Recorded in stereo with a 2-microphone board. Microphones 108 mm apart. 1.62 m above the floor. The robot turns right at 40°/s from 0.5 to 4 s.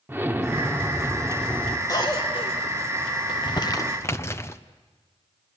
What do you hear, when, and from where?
0.1 s an explosion: 35° right, 1.3 m; by 1.8 s 15° left, 1.3 m
1.9 s a cough: 35° left (ahead or behind), 2.0 m; by 2.5 s 60° left (ahead or behind), 2.0 m
3.3 s crumpling: 55° left (ahead or behind), 1.0 m; by 4.6 s 25° left (ahead or behind), 1.0 m